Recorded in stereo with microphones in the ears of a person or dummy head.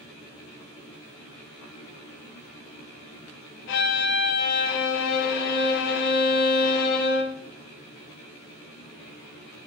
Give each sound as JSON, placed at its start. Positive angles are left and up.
{"t": 3.7, "sound": "a violin", "side_deg": 55, "distance_m": 0.6}